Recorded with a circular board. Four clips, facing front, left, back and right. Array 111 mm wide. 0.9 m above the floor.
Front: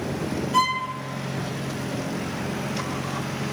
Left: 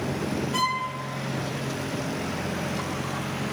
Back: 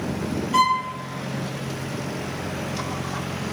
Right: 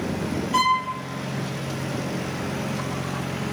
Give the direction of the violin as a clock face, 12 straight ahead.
5 o'clock.